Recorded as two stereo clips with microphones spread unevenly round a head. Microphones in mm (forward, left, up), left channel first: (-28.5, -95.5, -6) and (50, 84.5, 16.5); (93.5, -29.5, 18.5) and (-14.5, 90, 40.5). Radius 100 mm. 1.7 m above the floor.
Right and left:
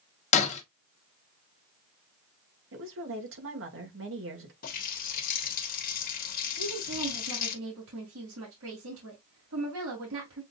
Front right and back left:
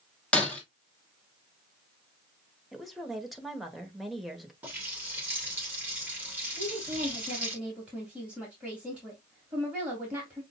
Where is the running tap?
155° right, 1.0 m.